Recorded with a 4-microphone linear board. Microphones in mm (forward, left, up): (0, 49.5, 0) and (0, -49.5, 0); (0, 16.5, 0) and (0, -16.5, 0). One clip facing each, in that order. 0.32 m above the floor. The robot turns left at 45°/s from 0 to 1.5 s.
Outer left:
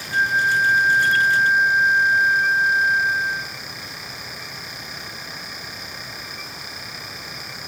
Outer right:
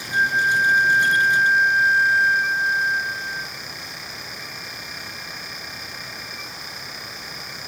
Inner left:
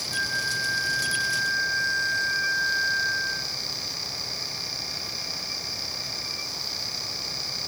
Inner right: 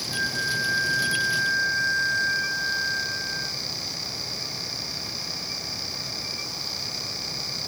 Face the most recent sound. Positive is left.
turn(degrees=110)